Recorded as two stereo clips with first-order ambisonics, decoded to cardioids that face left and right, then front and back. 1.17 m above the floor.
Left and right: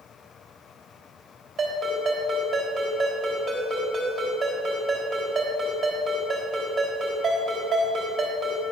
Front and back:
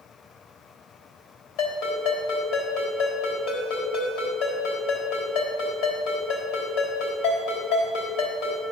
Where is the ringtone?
25° right, 3.5 m.